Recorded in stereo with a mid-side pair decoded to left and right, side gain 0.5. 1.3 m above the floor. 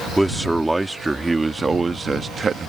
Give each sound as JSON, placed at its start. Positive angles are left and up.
{"t": 0.2, "sound": "a man speaking", "azimuth_deg": -10}